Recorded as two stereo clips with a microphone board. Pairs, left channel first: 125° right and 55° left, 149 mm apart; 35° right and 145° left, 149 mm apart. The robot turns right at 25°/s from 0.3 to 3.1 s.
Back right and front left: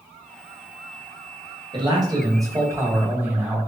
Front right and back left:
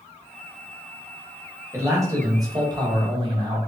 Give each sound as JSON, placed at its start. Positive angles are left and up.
{"t": 1.7, "sound": "a man speaking", "azimuth_deg": 85, "distance_m": 1.0}